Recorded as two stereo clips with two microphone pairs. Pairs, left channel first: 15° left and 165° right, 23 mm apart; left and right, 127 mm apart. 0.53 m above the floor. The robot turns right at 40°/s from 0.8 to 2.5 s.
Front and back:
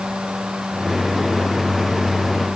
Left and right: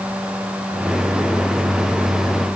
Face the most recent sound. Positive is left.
No sound to turn to.